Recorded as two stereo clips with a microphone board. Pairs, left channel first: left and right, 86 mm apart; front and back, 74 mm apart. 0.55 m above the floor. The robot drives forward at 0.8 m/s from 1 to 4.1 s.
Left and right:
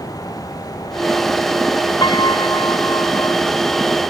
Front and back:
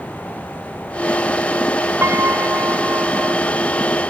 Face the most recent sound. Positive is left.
turn(degrees=130)